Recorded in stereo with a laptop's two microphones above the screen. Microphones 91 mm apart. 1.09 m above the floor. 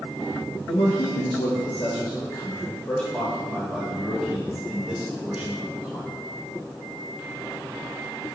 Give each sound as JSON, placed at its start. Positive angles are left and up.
{"t": 0.7, "sound": "a man speaking", "side_deg": 70, "distance_m": 1.1}